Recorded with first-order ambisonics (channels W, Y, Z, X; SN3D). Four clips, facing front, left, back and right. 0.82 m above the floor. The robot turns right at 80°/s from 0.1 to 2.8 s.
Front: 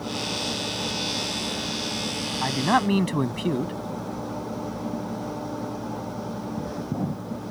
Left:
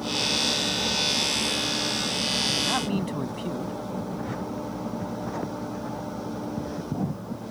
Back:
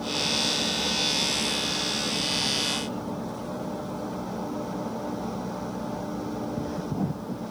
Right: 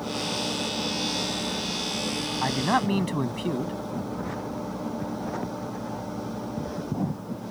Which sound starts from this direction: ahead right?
A man speaking, at 2.4 s.